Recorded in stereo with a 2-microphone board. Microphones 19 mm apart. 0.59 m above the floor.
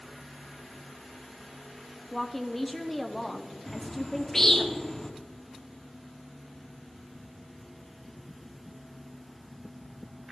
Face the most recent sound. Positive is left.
turn(degrees=20)  # may be behind; listen again after turning